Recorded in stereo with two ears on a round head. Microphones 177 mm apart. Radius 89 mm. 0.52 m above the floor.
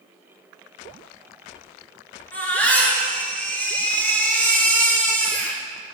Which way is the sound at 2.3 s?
10° left (ahead or behind).